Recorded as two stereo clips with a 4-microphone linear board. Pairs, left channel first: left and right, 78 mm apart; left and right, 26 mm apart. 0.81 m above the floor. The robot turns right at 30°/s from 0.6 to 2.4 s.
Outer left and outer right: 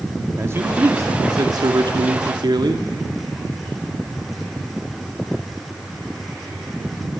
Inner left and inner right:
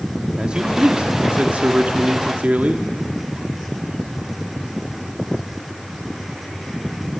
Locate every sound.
0.4 s a man speaking: 145° right, 1.7 m; by 2.9 s 90° right, 1.7 m